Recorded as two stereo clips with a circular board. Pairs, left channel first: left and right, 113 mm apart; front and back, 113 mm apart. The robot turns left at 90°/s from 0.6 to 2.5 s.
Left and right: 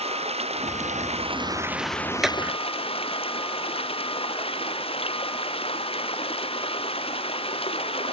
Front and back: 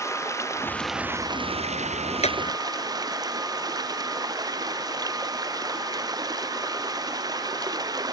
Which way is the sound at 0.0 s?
65° right.